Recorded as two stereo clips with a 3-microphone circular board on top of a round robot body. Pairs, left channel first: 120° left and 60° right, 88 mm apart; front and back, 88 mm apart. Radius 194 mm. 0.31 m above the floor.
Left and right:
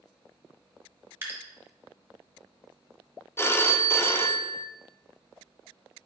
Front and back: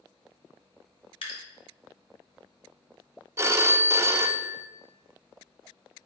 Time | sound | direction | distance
1.2 | dripping | 5° left | 1.1 m
3.4 | a phone ringing | 155° left | 0.6 m